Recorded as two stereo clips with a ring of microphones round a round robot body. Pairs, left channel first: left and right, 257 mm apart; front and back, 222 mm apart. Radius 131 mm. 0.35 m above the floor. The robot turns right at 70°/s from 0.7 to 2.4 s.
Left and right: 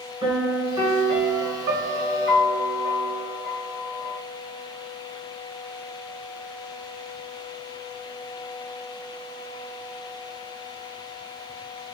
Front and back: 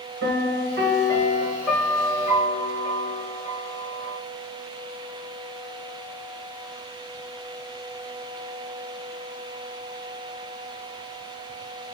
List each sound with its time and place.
0.2 s a piano: 165° right, 1.5 m; by 4.2 s 45° right, 1.5 m